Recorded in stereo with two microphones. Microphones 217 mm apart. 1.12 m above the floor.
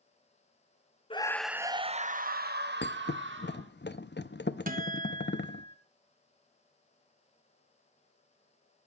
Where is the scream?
25° left (ahead or behind), 0.7 m; by 3.7 s 65° right (ahead or behind), 2 m.